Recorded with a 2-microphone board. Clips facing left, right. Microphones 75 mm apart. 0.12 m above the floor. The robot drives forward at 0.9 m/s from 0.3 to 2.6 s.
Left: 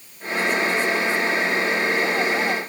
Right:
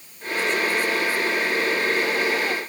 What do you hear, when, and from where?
Only background noise.